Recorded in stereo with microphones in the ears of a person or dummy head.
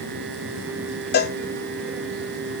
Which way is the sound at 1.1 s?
50° left (ahead or behind).